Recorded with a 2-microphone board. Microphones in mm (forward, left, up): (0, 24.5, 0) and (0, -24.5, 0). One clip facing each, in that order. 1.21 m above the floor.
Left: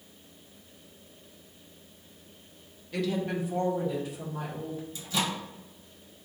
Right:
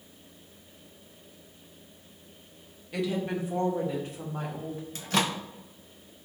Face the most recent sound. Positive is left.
turn(degrees=-60)  # may be behind; listen again after turning